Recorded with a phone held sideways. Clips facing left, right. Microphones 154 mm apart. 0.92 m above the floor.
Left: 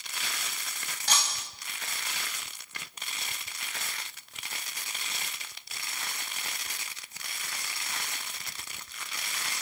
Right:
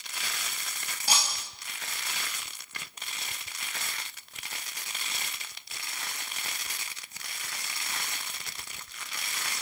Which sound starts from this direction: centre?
Breaking glass, at 1.1 s.